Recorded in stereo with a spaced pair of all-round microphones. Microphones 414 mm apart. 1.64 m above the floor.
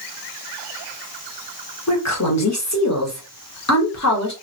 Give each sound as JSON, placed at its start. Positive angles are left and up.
{"t": 1.9, "sound": "a woman speaking", "side_deg": 40, "distance_m": 1.2}